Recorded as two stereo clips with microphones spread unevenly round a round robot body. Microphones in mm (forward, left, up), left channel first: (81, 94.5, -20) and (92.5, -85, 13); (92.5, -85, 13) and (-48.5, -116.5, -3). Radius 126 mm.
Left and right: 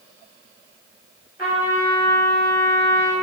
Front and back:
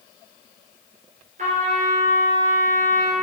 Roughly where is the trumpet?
Behind.